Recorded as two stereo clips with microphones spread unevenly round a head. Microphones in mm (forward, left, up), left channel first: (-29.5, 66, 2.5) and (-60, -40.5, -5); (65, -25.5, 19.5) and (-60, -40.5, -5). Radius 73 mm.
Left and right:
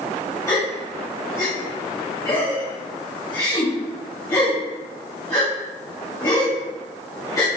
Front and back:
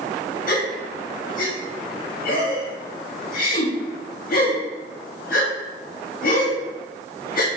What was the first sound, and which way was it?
A gasp, 5° left.